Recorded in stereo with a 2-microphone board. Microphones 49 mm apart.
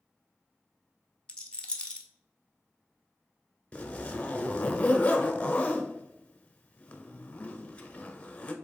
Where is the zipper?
25° left (ahead or behind), 0.7 m.